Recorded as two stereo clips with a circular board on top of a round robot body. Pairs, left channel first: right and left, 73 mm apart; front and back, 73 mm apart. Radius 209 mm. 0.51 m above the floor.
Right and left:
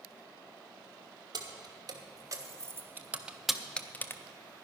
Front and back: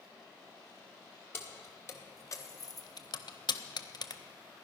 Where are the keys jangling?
60° left, 1.8 m; by 4.2 s 30° right, 0.9 m.